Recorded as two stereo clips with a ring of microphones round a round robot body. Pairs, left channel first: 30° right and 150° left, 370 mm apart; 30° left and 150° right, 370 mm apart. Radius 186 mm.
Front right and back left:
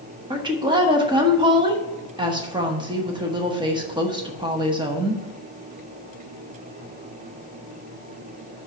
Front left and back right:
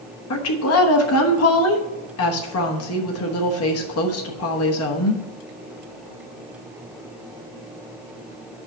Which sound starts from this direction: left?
A woman speaking, at 0.3 s.